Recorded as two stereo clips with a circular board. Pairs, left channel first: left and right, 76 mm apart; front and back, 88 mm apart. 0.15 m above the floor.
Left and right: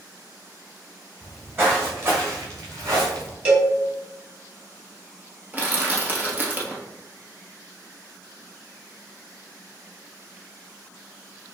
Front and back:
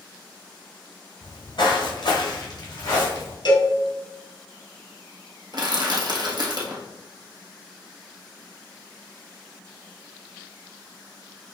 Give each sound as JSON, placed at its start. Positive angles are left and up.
{"t": 1.2, "sound": "footsteps", "azimuth_deg": -20, "distance_m": 1.7}
{"t": 3.5, "sound": "a cowbell", "azimuth_deg": -25, "distance_m": 2.0}
{"t": 5.5, "sound": "crushing", "azimuth_deg": -155, "distance_m": 1.2}